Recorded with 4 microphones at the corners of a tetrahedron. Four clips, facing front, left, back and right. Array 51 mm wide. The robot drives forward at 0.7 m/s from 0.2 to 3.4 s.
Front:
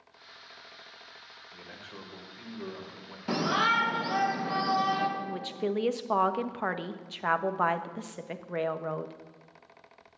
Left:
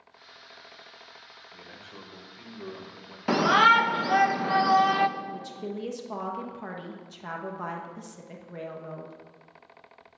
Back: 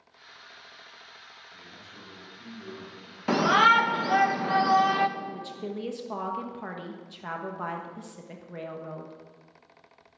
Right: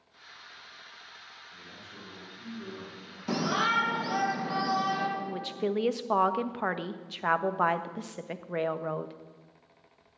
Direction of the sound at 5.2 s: 55° right.